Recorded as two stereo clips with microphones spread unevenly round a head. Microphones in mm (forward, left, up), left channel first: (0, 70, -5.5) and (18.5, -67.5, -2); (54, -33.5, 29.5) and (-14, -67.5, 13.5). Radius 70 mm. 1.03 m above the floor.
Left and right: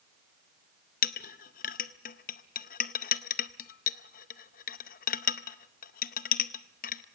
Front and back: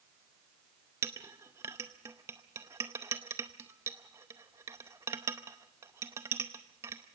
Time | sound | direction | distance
1.0 | a clink | 135° left | 0.6 m